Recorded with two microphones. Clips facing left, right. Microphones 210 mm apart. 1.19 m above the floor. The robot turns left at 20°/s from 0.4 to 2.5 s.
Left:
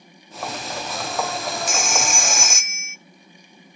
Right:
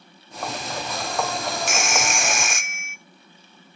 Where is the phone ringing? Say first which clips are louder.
Even; 90° right, 0.5 m; by 3.0 s 75° right (ahead or behind), 0.5 m.